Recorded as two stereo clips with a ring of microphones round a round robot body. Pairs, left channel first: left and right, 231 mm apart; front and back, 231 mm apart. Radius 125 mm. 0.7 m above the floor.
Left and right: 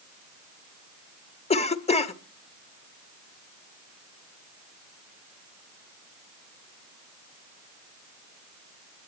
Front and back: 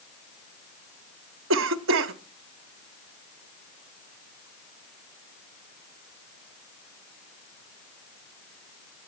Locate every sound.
1.5 s a cough: 150° left, 1.0 m